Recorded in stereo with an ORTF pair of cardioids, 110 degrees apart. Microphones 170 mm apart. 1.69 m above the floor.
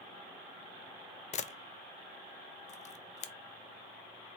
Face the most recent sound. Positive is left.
turn(degrees=40)